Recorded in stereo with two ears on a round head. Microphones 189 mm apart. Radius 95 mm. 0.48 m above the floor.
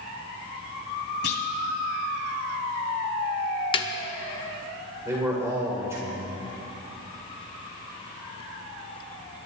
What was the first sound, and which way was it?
A clunk, 50° left (ahead or behind).